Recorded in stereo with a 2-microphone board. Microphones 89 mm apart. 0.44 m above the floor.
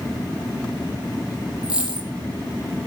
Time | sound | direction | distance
1.6 | a dropped coin | 10° right (ahead or behind) | 5.5 m